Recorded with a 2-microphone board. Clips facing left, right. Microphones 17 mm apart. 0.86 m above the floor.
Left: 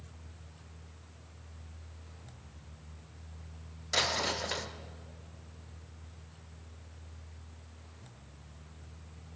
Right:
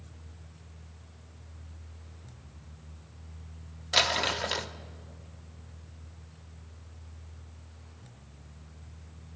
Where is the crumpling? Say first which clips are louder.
Right 5 dB; 50° right (ahead or behind), 0.7 m.